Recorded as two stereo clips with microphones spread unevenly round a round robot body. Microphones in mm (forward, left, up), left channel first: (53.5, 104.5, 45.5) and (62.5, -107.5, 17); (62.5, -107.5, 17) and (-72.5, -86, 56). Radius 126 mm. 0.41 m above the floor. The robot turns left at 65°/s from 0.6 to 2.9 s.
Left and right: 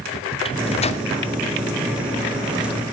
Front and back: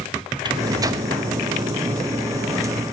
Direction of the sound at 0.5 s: 125° left.